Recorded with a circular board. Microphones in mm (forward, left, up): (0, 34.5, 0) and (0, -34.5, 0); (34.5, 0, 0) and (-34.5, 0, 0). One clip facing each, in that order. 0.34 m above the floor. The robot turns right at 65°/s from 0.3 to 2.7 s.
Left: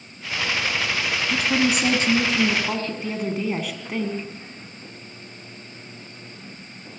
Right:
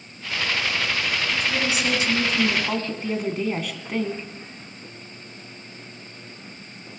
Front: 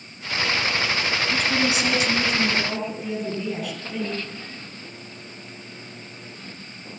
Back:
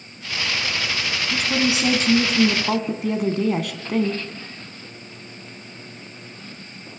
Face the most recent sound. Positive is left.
turn(degrees=175)